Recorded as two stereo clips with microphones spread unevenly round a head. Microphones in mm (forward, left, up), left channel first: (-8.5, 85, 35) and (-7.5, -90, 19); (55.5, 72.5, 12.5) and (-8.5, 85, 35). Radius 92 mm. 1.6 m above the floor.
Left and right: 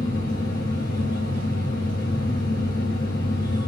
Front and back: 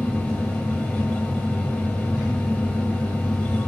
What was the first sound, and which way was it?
A fan, 55° left.